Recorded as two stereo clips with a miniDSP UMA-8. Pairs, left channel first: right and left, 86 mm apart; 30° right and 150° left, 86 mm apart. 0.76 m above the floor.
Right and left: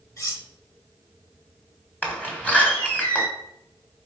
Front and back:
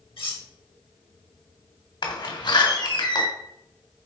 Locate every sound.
0.2 s cutlery clinking: 35° right, 1.8 m
2.0 s a door slam: 15° right, 2 m